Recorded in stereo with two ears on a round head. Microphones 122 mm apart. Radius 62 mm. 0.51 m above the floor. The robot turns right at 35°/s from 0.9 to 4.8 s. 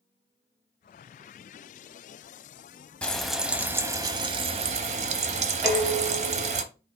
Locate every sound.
3.0 s frying: 170° left, 0.7 m; by 6.6 s 125° right, 0.7 m
5.6 s dishes clattering: centre (ahead or behind), 2 m